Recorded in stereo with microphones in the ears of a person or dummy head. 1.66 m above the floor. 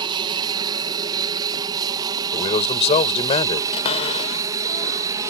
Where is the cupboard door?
40° left (ahead or behind).